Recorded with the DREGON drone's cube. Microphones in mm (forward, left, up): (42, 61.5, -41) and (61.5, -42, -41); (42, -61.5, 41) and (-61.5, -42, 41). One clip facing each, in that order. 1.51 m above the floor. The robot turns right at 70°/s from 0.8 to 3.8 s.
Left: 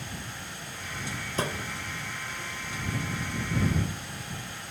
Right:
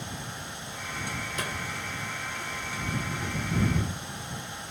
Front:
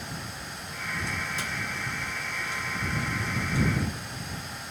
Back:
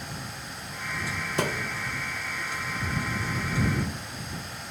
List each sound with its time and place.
1.4 s a thud: 155° left; by 1.8 s straight behind